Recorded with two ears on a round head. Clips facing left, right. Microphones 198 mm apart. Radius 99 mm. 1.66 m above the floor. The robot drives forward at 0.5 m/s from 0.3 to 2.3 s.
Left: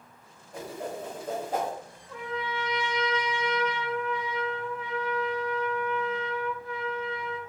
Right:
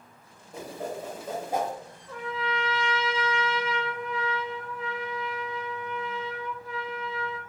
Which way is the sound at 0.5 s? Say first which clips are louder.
Right 1 dB; 10° right (ahead or behind).